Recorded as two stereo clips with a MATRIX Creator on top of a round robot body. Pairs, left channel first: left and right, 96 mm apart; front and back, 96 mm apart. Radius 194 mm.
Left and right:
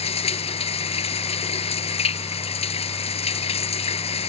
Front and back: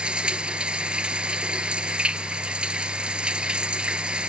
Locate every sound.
0.0 s running water: 100° left